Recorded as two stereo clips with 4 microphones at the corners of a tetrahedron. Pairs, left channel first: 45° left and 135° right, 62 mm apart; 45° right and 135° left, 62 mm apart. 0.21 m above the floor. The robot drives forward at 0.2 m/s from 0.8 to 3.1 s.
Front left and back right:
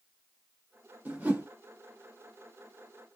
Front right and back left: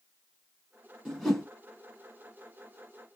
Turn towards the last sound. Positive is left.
turn(degrees=-145)